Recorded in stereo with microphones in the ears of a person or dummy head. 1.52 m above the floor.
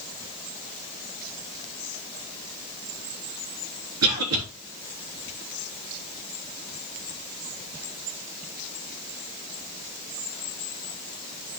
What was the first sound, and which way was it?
A cough, 85° right.